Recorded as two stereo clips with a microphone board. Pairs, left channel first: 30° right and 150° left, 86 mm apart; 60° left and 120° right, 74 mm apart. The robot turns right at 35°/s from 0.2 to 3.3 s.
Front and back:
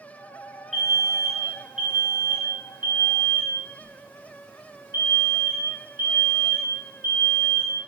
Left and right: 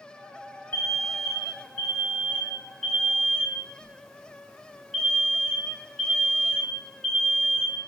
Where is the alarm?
50° left, 0.7 m; by 7.8 s 140° left, 0.7 m.